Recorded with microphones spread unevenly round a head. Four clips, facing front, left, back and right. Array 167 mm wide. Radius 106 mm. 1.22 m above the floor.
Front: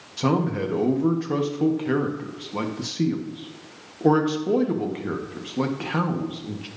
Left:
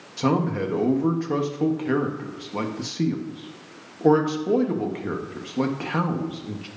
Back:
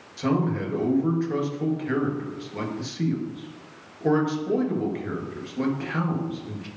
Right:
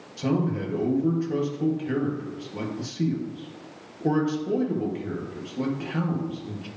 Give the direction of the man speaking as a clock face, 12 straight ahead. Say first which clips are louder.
Left 3 dB, front 2 dB; 10 o'clock.